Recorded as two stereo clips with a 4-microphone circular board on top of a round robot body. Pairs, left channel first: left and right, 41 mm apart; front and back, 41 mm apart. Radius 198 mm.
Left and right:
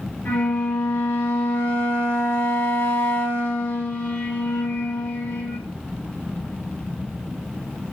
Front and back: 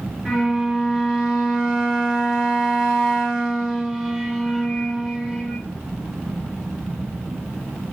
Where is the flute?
80° left, 2 m.